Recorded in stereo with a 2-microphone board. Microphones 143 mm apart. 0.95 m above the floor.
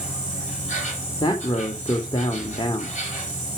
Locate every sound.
0.0 s an insect: 55° left (ahead or behind), 6.5 m
1.2 s a man speaking: 35° left (ahead or behind), 2 m